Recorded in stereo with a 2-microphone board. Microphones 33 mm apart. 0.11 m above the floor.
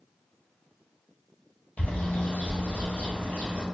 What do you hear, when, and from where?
1.8 s a bird: 55° left (ahead or behind), 1.1 m